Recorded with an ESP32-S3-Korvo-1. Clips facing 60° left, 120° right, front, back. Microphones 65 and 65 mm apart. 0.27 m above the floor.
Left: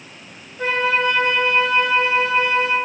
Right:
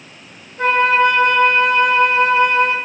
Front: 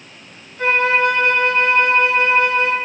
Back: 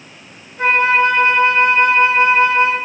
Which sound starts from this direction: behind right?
A flute, at 0.6 s.